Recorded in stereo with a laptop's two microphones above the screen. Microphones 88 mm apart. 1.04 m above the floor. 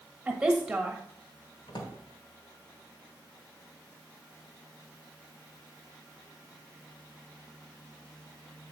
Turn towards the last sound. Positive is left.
turn(degrees=75)  # may be behind; listen again after turning